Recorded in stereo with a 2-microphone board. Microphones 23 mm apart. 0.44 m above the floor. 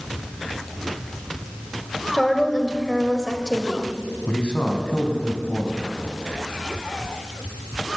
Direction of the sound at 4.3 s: 75° left (ahead or behind).